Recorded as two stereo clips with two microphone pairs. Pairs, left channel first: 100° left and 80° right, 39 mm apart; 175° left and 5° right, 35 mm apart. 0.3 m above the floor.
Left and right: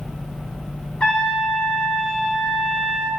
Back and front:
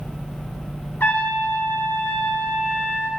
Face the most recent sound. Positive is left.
turn(degrees=165)